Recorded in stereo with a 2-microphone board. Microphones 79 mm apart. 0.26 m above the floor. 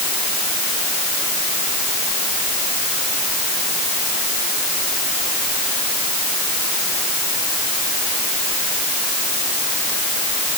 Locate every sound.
Only background noise.